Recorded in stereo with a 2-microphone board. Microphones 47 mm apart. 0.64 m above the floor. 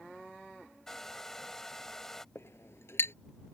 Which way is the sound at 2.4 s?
65° left (ahead or behind).